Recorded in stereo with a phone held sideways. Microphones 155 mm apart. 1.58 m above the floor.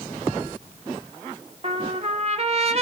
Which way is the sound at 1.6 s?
40° right (ahead or behind).